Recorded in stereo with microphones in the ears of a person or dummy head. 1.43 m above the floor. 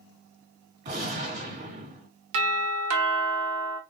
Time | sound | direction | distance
0.8 | a gunshot | 50° right (ahead or behind) | 1.9 m
2.3 | a doorbell | 60° right (ahead or behind) | 0.8 m